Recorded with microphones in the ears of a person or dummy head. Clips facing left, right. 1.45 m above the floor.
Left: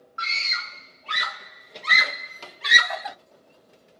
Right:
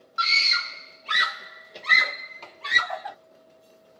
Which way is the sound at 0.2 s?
55° right (ahead or behind).